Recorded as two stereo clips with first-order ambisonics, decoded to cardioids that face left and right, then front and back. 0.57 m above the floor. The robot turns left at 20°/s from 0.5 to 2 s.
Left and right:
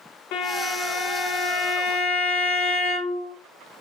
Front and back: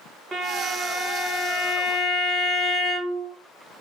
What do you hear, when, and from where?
0.3 s a violin: 105° left, 0.8 m; by 3.3 s 75° left, 0.8 m